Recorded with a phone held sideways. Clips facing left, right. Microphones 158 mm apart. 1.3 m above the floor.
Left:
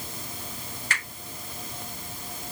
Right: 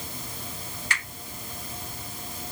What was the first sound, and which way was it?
A finger snap, 50° left (ahead or behind).